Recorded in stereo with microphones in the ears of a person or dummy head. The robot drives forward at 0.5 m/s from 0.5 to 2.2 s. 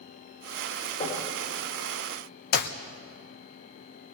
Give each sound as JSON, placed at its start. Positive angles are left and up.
{"t": 1.0, "sound": "knocking", "side_deg": 25, "distance_m": 5.0}
{"t": 2.5, "sound": "a clap", "side_deg": 50, "distance_m": 0.9}